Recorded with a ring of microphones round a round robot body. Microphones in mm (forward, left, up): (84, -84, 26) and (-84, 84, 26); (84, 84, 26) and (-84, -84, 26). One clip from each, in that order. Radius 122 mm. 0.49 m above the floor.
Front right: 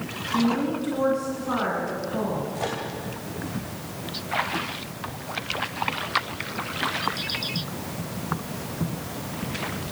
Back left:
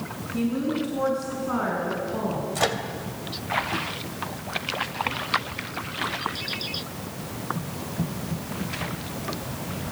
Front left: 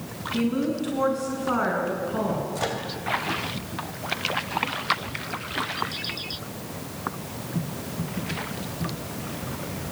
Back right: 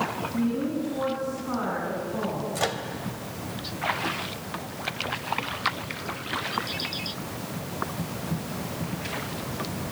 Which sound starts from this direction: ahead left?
A woman speaking, at 0.3 s.